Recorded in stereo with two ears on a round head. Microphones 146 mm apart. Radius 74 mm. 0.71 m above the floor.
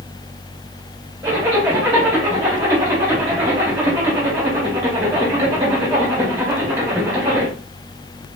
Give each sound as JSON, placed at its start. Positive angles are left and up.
{"t": 1.2, "sound": "a zipper", "side_deg": -20, "distance_m": 2.5}